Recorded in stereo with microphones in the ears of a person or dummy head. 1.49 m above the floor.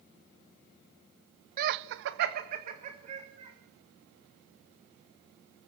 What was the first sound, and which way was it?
Laughter, 50° right (ahead or behind).